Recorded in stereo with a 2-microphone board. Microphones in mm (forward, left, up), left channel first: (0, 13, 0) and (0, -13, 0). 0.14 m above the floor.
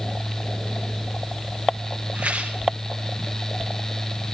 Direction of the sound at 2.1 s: 65° right (ahead or behind).